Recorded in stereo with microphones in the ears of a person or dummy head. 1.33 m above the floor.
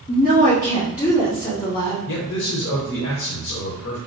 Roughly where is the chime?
No chime in this recording.